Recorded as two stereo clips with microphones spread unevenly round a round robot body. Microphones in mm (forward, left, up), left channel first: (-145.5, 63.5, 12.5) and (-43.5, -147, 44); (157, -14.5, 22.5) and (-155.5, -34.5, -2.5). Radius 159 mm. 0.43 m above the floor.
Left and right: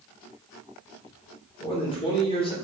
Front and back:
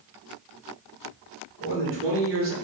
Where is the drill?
I don't hear a drill.